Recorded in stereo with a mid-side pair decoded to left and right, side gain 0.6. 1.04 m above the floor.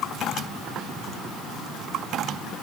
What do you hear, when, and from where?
Only background noise.